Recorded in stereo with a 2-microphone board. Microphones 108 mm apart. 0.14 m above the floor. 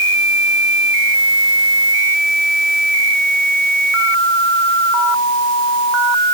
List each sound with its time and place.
Only background noise.